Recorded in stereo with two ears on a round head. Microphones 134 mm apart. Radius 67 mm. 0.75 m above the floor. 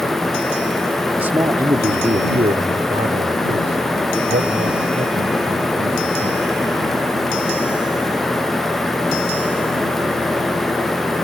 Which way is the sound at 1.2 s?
10° right (ahead or behind).